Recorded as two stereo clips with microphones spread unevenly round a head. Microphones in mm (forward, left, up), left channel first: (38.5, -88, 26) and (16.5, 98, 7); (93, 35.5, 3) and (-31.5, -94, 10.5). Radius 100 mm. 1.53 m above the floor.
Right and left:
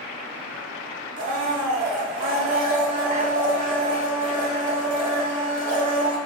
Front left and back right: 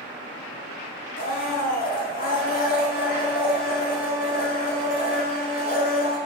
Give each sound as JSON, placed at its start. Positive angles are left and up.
{"t": 1.2, "sound": "a blender", "azimuth_deg": 65, "distance_m": 1.6}